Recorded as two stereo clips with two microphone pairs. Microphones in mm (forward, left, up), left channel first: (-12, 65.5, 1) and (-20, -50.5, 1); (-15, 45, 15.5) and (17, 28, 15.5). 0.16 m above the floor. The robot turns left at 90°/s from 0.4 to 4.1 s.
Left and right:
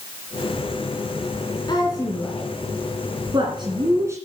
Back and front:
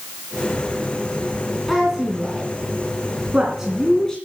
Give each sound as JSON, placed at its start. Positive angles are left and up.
{"t": 1.7, "sound": "a woman speaking", "azimuth_deg": 70, "distance_m": 2.0}